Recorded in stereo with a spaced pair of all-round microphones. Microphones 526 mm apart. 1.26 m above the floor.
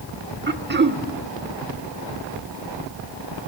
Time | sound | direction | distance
0.5 | throat clearing | 20° right (ahead or behind) | 1.1 m